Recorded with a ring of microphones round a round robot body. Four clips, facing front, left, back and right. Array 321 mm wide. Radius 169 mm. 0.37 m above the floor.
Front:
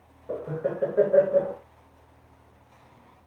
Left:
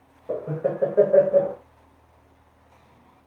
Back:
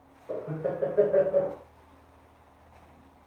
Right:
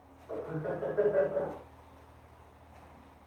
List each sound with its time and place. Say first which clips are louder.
0.3 s laughter: left 10 dB, front 2 dB; 80° left, 2.5 m